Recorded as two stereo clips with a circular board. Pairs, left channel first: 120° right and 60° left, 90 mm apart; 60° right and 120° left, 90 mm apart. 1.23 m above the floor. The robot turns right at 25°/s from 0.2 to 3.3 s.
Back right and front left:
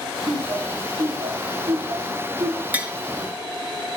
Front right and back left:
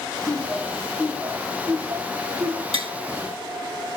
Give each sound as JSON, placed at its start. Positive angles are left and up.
{"t": 0.3, "sound": "laughter", "azimuth_deg": 25, "distance_m": 2.5}
{"t": 2.7, "sound": "tapping", "azimuth_deg": 135, "distance_m": 1.4}